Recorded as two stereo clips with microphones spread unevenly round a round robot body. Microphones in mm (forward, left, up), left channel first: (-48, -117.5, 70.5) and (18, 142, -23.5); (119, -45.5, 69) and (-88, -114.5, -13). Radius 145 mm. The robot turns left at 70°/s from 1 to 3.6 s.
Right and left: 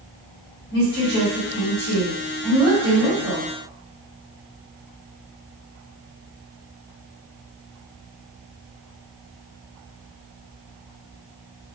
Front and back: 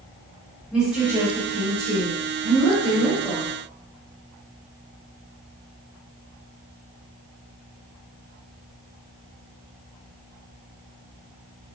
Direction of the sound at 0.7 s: 85° right.